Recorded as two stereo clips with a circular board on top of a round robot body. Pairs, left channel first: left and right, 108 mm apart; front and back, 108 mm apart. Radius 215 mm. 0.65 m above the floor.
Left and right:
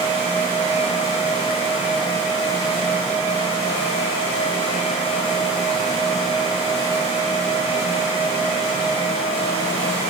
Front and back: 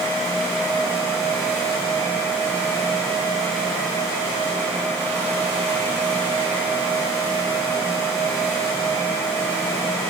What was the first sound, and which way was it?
Only background noise.